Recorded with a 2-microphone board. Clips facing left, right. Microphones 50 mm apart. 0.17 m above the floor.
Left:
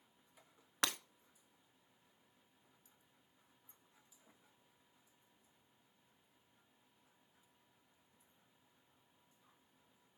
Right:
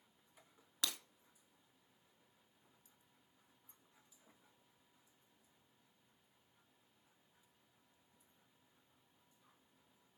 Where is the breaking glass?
50° left (ahead or behind), 0.7 m.